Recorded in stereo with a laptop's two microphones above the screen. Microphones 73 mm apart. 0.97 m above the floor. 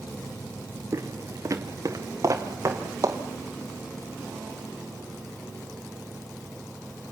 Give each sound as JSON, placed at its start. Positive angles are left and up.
{"t": 0.9, "sound": "footsteps", "side_deg": -45, "distance_m": 1.3}